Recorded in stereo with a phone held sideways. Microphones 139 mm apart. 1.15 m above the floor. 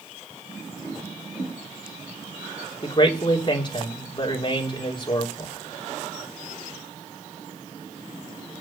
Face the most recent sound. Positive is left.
turn(degrees=35)  # may be behind; listen again after turning